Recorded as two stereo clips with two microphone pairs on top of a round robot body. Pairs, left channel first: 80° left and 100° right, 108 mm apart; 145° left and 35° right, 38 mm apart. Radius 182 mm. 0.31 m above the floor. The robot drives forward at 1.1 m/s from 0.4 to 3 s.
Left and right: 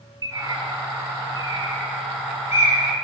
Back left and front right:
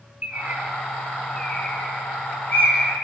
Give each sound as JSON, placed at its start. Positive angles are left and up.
{"t": 0.2, "sound": "a bird", "azimuth_deg": -55, "distance_m": 0.8}